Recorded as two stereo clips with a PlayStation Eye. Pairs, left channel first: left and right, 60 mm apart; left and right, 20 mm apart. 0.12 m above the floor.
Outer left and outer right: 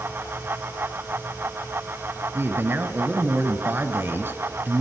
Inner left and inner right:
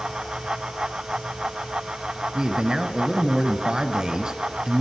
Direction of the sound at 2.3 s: 35° right (ahead or behind).